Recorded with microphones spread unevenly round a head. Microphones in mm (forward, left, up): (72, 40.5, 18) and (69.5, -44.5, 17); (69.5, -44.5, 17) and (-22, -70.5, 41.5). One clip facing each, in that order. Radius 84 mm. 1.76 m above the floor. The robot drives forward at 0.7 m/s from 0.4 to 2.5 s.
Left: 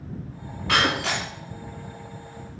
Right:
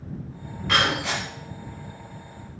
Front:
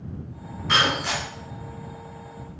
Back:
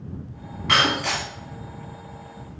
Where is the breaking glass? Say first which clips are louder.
Left 1 dB, back 1 dB; 155° left, 3 m; by 1.2 s 160° left, 3.5 m.